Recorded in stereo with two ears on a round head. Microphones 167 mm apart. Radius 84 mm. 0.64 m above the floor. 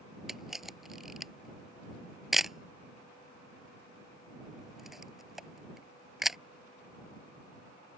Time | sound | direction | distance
0.3 | a camera shutter | centre (ahead or behind) | ?